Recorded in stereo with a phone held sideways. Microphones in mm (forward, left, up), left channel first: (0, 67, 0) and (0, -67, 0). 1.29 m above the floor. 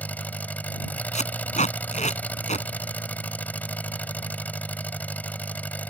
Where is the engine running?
15° left (ahead or behind).